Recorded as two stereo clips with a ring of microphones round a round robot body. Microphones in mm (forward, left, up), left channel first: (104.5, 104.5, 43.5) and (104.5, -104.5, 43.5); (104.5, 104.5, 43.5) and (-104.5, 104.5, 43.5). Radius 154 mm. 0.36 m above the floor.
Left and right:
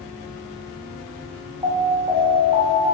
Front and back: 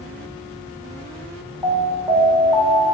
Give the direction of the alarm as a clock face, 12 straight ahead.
4 o'clock.